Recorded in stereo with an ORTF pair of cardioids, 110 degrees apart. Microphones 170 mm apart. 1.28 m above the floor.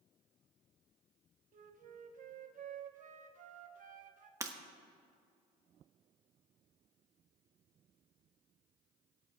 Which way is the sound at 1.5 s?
50° right.